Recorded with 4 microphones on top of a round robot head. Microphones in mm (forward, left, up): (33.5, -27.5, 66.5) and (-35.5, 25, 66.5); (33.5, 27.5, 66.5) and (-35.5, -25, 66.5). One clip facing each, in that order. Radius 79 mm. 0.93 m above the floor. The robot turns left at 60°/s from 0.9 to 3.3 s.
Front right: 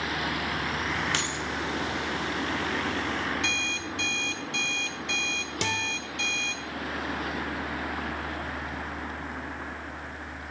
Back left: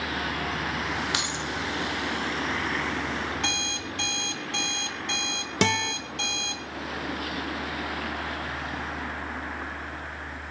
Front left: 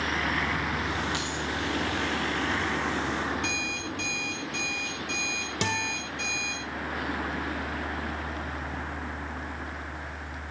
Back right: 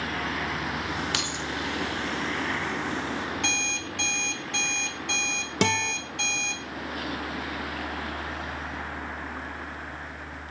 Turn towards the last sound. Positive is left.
turn(degrees=180)